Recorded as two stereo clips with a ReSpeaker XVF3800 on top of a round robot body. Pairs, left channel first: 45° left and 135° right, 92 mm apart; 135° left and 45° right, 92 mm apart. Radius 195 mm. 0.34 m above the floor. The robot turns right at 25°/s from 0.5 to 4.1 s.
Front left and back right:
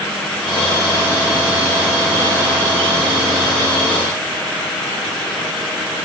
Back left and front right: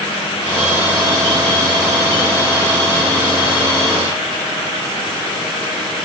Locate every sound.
Only background noise.